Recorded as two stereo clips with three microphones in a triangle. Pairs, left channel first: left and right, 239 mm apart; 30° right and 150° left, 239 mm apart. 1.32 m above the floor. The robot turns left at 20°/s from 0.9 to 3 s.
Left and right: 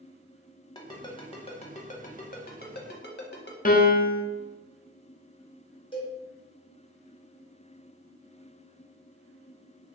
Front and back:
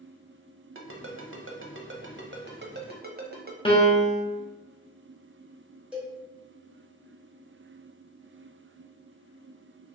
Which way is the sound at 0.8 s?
160° left.